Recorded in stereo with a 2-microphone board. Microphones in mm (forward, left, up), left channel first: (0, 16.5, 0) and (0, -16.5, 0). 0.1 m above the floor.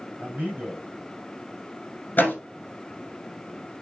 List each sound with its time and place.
0.2 s a man speaking: 45° right (ahead or behind), 3.5 m
2.2 s a door slam: 60° left (ahead or behind), 2.5 m